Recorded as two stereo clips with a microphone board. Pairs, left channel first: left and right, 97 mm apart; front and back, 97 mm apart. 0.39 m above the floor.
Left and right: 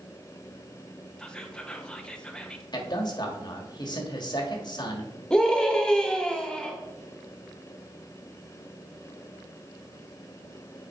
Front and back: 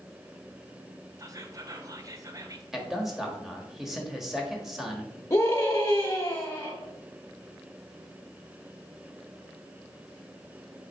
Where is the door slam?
I don't hear a door slam.